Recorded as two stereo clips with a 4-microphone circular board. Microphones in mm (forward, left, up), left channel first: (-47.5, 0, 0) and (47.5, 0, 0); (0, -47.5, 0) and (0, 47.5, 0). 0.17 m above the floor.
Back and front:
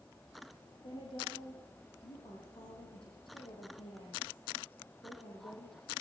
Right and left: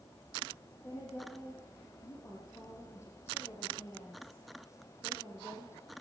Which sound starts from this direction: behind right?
A woman speaking, at 0.8 s.